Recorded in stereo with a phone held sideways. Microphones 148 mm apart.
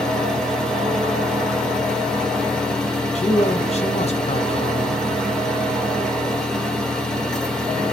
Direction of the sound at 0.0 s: 5° left (ahead or behind).